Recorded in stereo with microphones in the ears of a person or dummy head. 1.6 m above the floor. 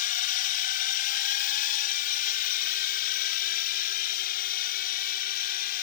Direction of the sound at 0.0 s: 45° left (ahead or behind).